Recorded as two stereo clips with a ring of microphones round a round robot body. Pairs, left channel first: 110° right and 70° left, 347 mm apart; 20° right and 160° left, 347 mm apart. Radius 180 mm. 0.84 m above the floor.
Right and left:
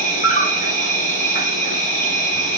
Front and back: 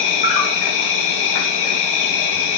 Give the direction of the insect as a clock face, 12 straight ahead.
1 o'clock.